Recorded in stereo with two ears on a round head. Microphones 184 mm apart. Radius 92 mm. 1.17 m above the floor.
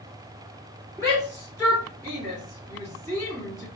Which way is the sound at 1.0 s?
15° right (ahead or behind).